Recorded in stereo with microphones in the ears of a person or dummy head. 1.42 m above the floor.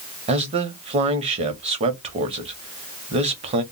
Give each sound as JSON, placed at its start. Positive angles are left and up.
{"t": 0.3, "sound": "a man speaking", "side_deg": -35, "distance_m": 0.6}